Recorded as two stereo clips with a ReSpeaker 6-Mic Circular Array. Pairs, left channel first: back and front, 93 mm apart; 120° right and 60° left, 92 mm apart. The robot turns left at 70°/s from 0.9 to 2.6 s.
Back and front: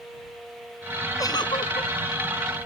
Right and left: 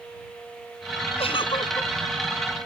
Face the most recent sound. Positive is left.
turn(degrees=135)